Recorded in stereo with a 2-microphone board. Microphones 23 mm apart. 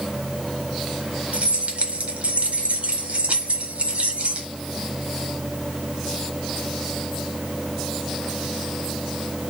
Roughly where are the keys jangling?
Right.